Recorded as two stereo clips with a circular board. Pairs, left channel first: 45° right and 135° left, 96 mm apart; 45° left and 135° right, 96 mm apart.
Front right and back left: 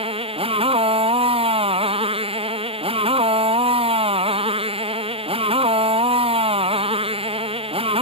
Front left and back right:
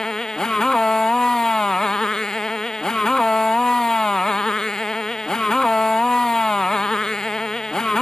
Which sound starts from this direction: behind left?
A motorcycle, at 0.0 s.